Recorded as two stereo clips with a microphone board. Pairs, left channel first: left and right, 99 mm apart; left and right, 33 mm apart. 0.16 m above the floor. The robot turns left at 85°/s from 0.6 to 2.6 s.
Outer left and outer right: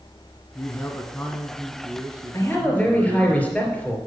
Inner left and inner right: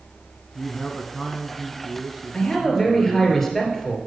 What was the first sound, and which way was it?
A man speaking, 25° left (ahead or behind).